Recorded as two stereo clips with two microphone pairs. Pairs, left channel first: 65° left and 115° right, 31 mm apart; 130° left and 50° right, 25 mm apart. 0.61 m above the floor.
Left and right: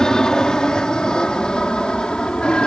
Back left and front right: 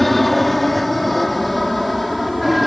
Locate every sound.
0.0 s an aircraft: 60° left; by 2.7 s 45° left